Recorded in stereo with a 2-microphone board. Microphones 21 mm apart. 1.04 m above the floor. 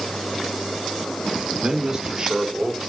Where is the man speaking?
25° right (ahead or behind), 2 m; by 2.8 s 20° right (ahead or behind), 3.5 m.